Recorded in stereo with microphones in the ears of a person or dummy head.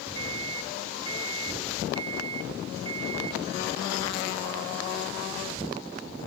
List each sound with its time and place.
0.1 s a microwave: 35° right (ahead or behind), 1.5 m